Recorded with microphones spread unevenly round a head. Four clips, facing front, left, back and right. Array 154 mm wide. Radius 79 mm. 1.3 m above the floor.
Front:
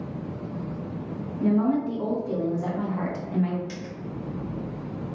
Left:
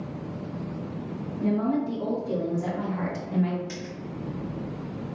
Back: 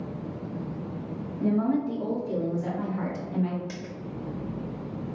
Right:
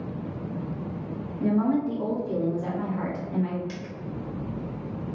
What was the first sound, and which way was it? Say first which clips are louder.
A woman speaking: right 2 dB, front 2 dB; 20° right.